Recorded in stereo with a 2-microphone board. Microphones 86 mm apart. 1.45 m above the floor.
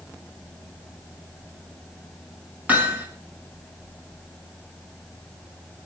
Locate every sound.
2.7 s hammering: 20° right (ahead or behind), 6.5 m